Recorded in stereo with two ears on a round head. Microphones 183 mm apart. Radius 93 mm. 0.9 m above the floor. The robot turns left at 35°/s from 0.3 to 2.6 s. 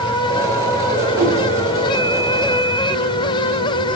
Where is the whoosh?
85° right, 2.5 m; by 1.4 s 80° right, 2.5 m.